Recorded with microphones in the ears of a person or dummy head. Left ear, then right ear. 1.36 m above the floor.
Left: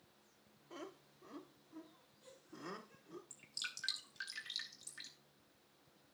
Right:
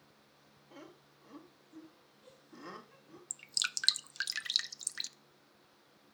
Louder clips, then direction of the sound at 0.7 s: Left 2 dB; 10° left (ahead or behind).